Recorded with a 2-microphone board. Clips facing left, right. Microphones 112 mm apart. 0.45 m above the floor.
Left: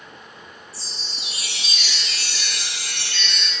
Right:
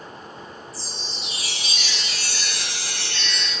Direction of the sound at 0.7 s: 80° left.